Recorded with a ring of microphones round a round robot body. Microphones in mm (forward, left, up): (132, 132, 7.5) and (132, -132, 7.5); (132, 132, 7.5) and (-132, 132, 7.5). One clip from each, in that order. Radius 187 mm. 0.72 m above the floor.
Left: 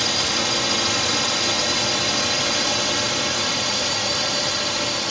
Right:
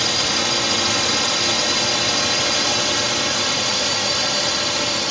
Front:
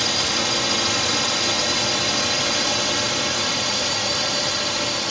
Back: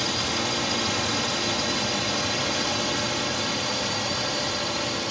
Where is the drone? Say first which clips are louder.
Right 2 dB, front 5 dB; 25° right; by 5.1 s 40° right.